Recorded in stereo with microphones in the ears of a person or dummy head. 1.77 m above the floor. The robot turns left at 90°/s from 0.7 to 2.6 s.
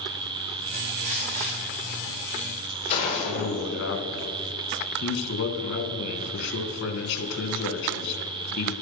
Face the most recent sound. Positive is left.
turn(degrees=70)  # may be behind; listen again after turning